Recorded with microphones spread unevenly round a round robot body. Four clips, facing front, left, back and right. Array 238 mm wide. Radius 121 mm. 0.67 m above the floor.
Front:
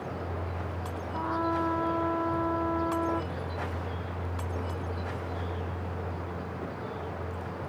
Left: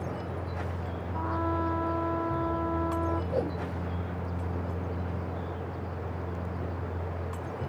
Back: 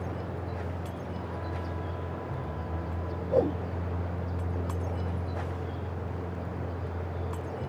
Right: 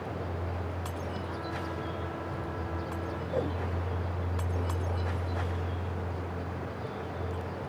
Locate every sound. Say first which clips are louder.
1.1 s a trumpet: left 6 dB, front 8 dB; 35° left
3.3 s a whoosh: left 2 dB, back 12 dB; 175° left